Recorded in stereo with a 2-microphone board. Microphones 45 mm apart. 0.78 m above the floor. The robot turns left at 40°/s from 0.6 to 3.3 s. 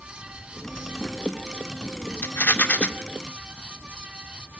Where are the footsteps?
No footsteps in this recording.